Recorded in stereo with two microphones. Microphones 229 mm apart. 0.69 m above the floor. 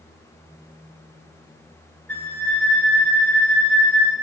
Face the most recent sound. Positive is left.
turn(degrees=5)  # may be behind; listen again after turning